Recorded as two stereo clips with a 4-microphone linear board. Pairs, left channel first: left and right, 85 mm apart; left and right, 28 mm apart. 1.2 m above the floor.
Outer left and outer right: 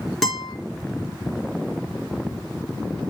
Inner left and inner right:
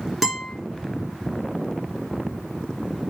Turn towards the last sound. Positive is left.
turn(degrees=0)  # may be behind; listen again after turning